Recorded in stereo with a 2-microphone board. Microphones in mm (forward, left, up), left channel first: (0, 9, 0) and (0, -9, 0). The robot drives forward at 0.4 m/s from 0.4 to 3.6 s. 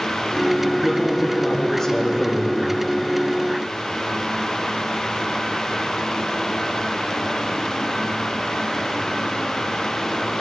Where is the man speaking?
10° left (ahead or behind), 5.5 m.